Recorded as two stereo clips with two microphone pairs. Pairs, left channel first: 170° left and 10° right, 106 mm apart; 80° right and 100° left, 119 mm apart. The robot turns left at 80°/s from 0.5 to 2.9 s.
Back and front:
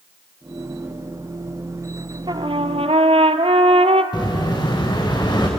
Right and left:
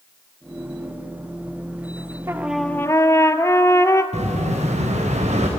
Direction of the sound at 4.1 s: 120° left.